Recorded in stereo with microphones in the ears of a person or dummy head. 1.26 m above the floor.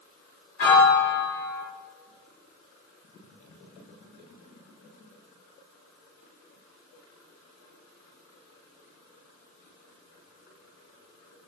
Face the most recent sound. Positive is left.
turn(degrees=40)  # may be behind; listen again after turning